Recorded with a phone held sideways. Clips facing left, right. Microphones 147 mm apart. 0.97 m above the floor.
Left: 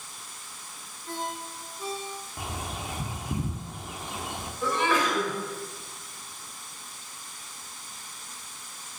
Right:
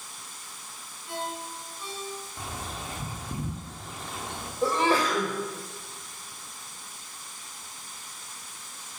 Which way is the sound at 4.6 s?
35° right (ahead or behind).